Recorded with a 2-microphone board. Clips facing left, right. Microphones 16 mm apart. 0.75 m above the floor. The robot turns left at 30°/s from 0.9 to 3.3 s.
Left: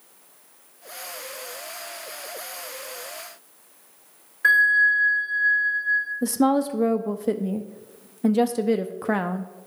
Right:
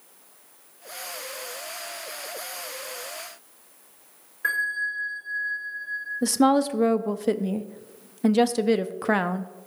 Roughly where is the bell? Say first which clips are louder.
Left 9 dB; left.